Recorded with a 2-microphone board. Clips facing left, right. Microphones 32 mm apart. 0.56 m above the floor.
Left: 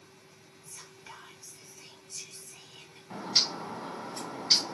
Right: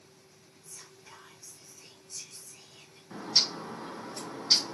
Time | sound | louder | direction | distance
0.7 | whispering | left 3 dB | 55° left (ahead or behind) | 2.0 m
3.1 | a bird | even | 50° left (ahead or behind) | 2.5 m